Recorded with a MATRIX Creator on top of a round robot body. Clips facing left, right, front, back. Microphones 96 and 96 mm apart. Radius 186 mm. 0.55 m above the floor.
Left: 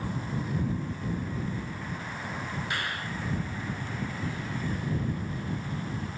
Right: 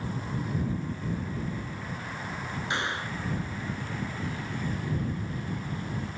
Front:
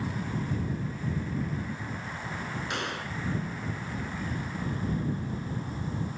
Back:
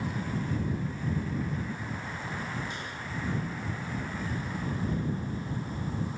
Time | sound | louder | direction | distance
2.7 | a gunshot | right 5 dB, front 4 dB | 20° right | ?